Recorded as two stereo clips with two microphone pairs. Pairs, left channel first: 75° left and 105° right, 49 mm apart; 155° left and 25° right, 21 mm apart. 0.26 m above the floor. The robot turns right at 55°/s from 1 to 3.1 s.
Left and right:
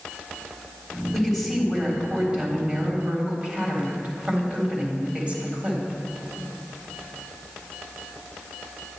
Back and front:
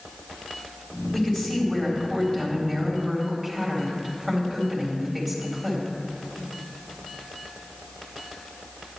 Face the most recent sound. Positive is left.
turn(degrees=-110)